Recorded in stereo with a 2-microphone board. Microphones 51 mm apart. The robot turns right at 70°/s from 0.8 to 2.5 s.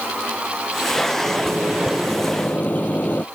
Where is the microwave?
60° right; by 3.2 s 30° left.